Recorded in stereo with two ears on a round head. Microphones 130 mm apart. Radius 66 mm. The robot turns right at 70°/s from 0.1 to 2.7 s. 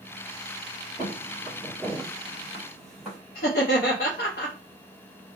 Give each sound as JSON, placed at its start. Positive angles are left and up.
{"t": 1.0, "sound": "footsteps", "side_deg": 0, "distance_m": 1.7}
{"t": 3.4, "sound": "laughter", "side_deg": 65, "distance_m": 0.8}